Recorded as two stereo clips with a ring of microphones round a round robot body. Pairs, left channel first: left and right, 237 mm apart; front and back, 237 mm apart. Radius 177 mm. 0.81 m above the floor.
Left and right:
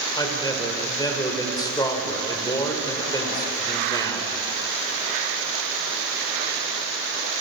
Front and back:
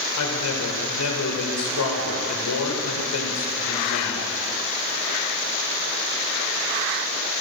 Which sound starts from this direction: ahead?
A man speaking, at 0.2 s.